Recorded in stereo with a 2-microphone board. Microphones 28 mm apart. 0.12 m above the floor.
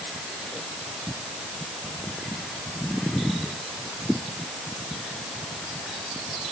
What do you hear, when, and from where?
Only background noise.